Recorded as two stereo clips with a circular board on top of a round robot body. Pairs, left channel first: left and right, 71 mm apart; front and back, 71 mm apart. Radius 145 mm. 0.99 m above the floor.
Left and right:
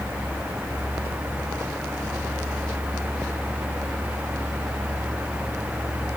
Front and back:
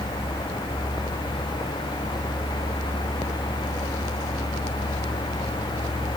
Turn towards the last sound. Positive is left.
No sound to turn to.